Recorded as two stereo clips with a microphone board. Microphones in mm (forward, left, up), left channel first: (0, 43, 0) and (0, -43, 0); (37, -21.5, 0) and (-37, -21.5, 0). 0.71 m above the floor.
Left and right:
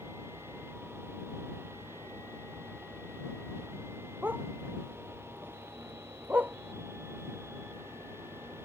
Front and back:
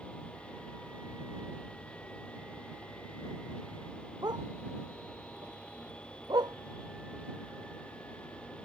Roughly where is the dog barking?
Behind.